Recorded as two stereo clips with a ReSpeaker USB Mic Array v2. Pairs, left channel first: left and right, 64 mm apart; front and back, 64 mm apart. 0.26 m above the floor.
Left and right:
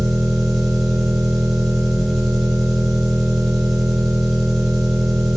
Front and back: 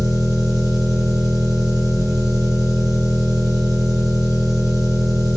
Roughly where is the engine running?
Behind.